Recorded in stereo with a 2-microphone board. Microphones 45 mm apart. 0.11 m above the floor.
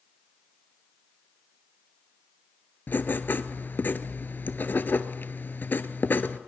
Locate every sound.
2.9 s writing: 50° left (ahead or behind), 0.8 m